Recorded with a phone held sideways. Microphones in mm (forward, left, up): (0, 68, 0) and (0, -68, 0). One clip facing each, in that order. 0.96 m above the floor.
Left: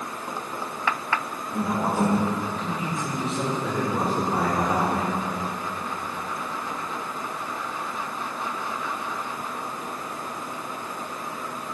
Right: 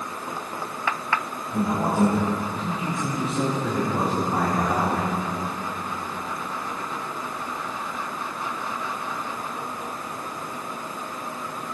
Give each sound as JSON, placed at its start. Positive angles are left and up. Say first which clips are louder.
{"t": 1.5, "sound": "a man speaking", "louder": "right 2 dB", "side_deg": -10, "distance_m": 4.0}